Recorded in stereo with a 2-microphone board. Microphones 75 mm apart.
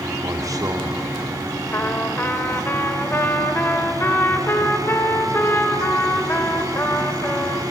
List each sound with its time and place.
0.2 s a man speaking: 55° right (ahead or behind), 1.7 m
1.7 s a trumpet: 30° left (ahead or behind), 2 m